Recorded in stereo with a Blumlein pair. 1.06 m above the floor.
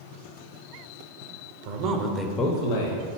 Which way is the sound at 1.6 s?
50° right.